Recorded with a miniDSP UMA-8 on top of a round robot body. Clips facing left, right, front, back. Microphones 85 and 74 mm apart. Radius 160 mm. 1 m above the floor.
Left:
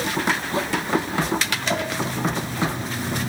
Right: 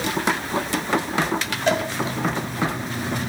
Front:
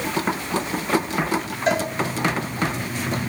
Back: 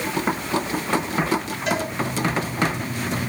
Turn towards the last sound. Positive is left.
turn(degrees=-55)